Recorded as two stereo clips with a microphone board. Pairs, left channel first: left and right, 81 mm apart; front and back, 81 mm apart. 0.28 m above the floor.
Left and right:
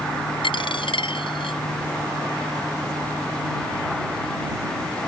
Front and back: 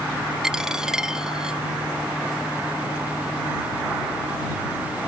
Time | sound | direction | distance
0.4 | a dropped coin | 95° left | ?